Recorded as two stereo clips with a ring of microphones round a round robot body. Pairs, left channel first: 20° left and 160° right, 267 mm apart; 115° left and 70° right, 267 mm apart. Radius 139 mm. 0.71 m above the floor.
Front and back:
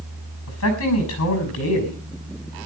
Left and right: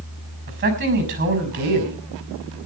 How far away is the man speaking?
About 6 m.